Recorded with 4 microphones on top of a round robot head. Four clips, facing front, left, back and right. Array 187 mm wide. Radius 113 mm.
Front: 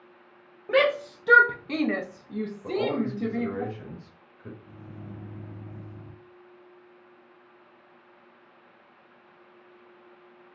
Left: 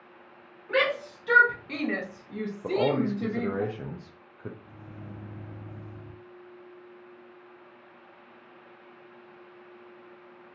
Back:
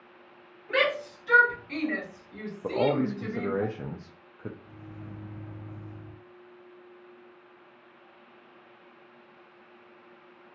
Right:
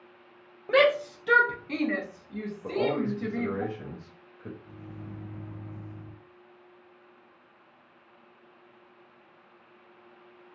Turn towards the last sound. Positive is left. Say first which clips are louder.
# right 1 dB, front 1 dB
turn(degrees=75)